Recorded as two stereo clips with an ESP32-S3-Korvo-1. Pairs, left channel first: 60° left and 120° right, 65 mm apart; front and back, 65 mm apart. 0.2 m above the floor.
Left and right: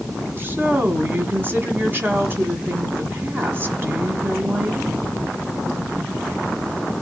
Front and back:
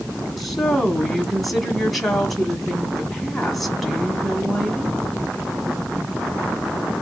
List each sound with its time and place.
0.4 s a woman speaking: 90° right, 1.4 m